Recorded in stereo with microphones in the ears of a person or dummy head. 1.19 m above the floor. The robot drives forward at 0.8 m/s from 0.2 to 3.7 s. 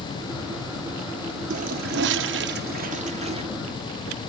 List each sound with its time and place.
1.5 s a toilet flushing: 40° right (ahead or behind), 0.8 m; by 3.4 s 25° right (ahead or behind), 1.2 m